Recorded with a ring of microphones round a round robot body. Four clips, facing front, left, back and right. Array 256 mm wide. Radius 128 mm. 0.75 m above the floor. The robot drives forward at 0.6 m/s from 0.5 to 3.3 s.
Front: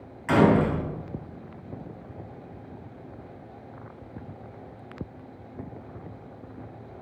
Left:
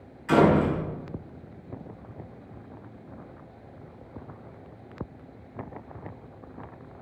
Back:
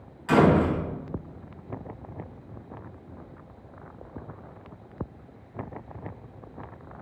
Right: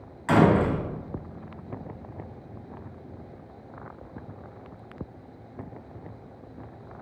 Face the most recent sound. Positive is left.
turn(degrees=-105)